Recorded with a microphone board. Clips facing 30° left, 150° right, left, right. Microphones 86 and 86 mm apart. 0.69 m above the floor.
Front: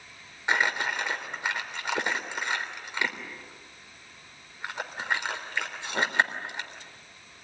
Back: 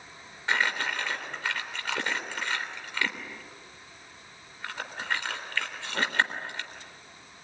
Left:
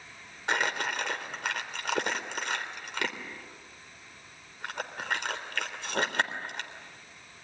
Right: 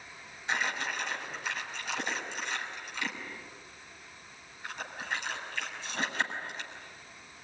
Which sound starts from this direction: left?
Crumpling, at 0.5 s.